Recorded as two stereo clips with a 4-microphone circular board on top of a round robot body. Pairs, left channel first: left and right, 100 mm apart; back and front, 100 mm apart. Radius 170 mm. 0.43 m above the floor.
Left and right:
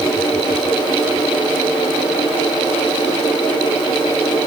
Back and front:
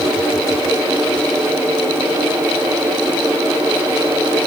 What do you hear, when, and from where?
Only background noise.